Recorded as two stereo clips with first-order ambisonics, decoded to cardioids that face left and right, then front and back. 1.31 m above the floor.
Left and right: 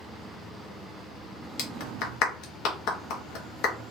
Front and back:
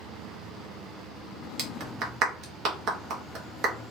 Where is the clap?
125° left, 1.2 m.